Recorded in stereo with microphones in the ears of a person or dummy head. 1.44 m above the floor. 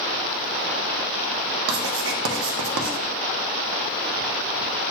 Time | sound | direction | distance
1.7 | writing | 80° right | 0.7 m